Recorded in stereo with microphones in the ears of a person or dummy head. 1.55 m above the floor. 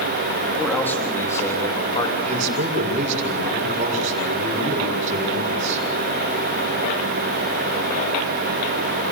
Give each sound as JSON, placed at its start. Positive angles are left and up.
{"t": 0.6, "sound": "a man speaking", "side_deg": 10, "distance_m": 3.0}
{"t": 2.2, "sound": "a man speaking", "side_deg": -45, "distance_m": 6.5}